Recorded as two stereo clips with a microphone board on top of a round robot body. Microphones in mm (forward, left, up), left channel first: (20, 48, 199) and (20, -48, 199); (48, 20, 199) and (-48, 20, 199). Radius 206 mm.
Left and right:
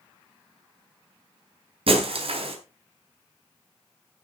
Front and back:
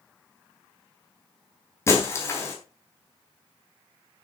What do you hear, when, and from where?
1.9 s breaking glass: 65° right, 3.5 m